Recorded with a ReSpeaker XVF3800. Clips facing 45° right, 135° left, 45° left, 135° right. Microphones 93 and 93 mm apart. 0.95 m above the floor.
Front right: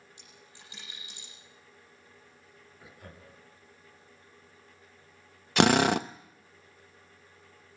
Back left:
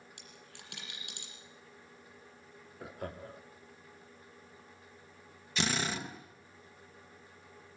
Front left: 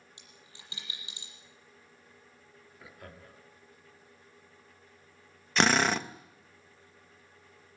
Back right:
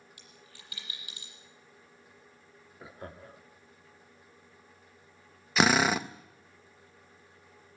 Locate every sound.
0.2 s a dropped coin: 110° left, 7.5 m
2.8 s laughter: 165° left, 2 m
5.6 s a drill: 50° right, 0.9 m